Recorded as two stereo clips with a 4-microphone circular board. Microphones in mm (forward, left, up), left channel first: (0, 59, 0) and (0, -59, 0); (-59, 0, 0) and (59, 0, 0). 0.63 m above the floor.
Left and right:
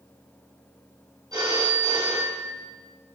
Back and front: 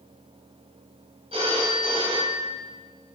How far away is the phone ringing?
About 3 m.